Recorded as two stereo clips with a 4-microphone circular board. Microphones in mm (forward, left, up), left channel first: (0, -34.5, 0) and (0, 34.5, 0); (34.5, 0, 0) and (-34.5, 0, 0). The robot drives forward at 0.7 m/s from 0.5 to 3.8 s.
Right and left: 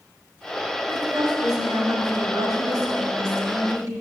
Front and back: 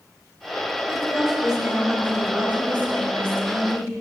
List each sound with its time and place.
0.9 s a woman speaking: 90° left, 3 m; by 3.9 s 120° left, 3.5 m